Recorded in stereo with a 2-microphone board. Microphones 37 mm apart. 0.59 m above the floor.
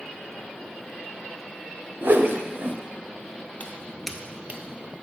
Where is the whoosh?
65° right (ahead or behind), 0.5 m.